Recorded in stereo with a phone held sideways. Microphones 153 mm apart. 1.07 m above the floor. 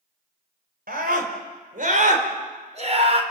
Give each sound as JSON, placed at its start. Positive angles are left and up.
{"t": 0.9, "sound": "a scream", "side_deg": -70, "distance_m": 5.0}